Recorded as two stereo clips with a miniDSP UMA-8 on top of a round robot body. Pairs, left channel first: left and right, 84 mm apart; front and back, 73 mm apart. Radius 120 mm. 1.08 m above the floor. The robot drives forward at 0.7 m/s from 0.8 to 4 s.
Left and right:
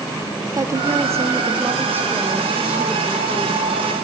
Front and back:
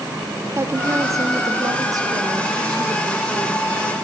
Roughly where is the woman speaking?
Behind right.